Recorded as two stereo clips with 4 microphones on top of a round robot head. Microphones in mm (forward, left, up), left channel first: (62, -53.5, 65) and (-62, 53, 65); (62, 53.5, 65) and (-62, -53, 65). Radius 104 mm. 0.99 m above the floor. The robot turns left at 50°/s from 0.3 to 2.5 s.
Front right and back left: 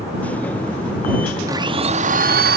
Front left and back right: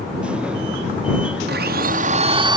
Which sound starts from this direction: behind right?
A blender, at 1.5 s.